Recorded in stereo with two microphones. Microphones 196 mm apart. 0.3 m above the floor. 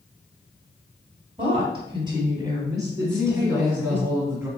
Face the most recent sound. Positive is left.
turn(degrees=-15)  # may be behind; listen again after turning